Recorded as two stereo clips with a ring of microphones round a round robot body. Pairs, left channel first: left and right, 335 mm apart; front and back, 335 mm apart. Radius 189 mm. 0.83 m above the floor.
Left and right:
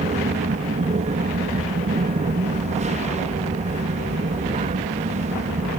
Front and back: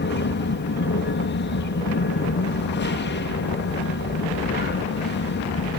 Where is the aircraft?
30° right.